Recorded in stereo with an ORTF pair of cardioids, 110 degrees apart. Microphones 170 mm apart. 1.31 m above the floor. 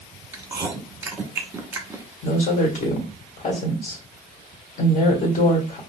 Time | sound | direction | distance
0.3 | chewing | 15° right | 1.0 m
2.2 | a woman speaking | 50° left | 1.6 m